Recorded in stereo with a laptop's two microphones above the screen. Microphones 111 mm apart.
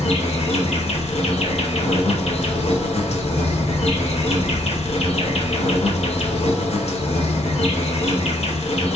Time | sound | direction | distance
0.0 | an insect | 65° left (ahead or behind) | 1.0 m